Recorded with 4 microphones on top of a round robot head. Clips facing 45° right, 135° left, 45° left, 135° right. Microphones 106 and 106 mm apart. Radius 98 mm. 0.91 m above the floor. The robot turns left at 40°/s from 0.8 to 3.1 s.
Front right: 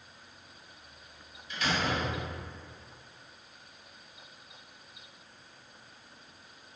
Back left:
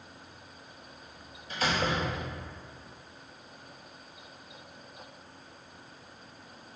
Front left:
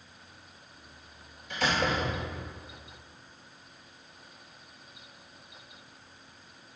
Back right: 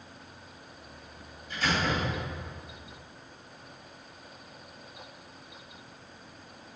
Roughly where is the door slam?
Left.